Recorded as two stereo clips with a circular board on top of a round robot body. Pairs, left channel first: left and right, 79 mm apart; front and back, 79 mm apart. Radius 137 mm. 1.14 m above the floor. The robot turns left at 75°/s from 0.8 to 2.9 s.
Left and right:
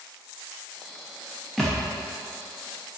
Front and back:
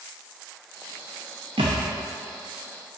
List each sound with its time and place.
1.6 s a thud: straight behind, 0.5 m; by 1.8 s 160° left, 0.5 m